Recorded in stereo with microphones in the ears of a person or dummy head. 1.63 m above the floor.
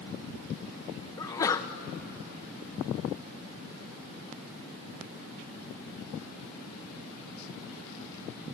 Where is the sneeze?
20° left (ahead or behind), 0.9 m.